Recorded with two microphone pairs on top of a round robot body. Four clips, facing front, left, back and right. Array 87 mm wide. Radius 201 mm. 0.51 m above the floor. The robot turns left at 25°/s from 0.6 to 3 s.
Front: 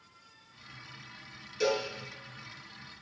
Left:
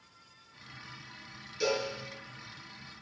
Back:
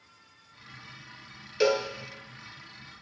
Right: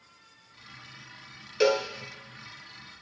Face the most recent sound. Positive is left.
turn(degrees=-155)